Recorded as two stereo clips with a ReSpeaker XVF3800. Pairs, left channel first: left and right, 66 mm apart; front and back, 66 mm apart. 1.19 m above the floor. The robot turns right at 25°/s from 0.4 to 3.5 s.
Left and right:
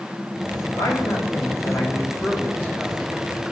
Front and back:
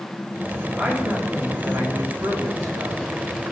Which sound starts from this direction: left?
A man speaking, at 0.8 s.